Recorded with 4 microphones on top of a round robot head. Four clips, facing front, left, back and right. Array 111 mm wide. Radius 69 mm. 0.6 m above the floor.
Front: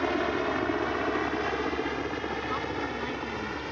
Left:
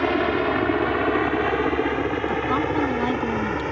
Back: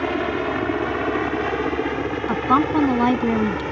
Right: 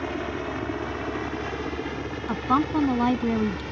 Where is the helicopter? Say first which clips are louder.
Left 9 dB, back 5 dB; 115° left; by 3.7 s 135° left.